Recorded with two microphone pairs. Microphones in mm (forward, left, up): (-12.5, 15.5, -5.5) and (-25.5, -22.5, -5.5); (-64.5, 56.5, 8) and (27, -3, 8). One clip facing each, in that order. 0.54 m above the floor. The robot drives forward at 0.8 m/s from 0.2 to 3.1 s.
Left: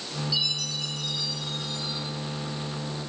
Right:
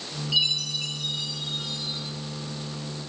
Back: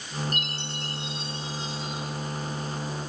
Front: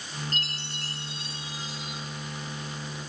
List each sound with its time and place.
0.3 s a chime: 145° right, 3.5 m; by 2.0 s 155° right, 4.5 m